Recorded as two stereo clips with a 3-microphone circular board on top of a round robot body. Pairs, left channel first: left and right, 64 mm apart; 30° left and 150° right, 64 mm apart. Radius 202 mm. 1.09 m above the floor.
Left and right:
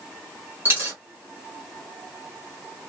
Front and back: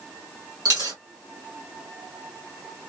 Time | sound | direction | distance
0.7 | a dropped coin | 145° right | 1.3 m